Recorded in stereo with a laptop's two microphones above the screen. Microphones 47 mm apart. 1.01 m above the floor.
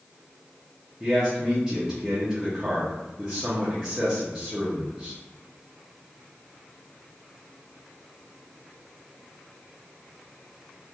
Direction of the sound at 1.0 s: 20° right (ahead or behind).